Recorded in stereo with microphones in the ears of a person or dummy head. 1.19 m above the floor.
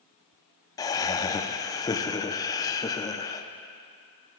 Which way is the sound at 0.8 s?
20° left (ahead or behind).